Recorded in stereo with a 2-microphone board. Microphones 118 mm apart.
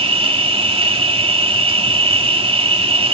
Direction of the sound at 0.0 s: 50° right (ahead or behind).